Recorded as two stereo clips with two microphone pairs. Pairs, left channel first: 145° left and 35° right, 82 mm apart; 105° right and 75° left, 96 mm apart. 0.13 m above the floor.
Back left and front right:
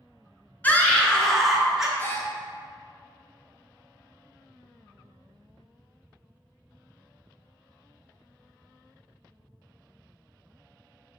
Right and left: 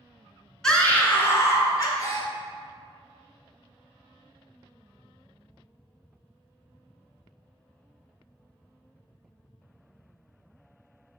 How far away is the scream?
About 1.4 m.